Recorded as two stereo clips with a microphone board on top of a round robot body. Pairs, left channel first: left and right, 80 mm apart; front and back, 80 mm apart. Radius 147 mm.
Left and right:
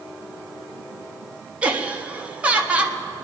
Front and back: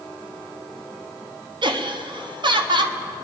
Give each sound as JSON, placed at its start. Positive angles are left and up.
{"t": 1.6, "sound": "laughter", "azimuth_deg": -165, "distance_m": 1.5}